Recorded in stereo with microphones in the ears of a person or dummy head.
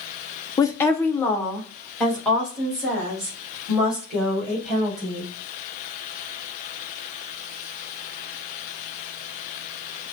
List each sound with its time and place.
0.6 s a woman speaking: 10° left (ahead or behind), 0.5 m; by 5.3 s 5° right (ahead or behind), 3.5 m